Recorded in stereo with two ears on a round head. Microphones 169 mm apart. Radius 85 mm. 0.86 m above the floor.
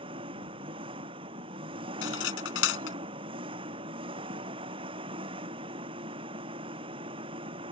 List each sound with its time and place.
0.0 s an engine running: 25° right (ahead or behind)
2.0 s cutlery clinking: 75° left (ahead or behind)